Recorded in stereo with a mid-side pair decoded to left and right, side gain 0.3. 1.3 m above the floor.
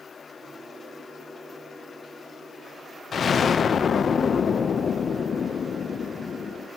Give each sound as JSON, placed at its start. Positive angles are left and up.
{"t": 3.1, "sound": "an explosion", "azimuth_deg": 65, "distance_m": 0.7}